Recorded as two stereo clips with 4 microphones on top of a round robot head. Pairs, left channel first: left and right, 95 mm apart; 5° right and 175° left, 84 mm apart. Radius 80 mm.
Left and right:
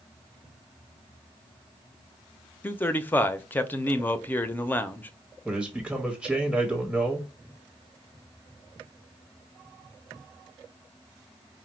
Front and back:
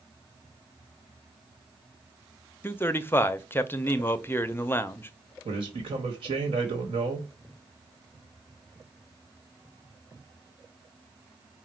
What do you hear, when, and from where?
2.6 s a man speaking: 40° left, 0.6 m
5.5 s a man speaking: straight behind, 1.4 m